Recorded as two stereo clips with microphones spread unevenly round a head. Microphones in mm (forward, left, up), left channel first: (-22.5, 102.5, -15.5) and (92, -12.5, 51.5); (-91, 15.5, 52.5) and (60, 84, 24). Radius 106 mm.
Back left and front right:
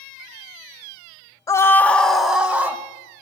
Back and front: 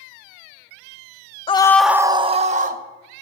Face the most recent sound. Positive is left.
turn(degrees=45)